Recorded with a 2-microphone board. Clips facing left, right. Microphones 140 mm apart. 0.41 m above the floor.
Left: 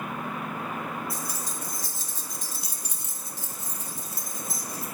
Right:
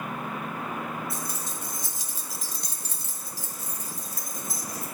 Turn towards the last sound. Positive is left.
turn(degrees=30)  # may be behind; listen again after turning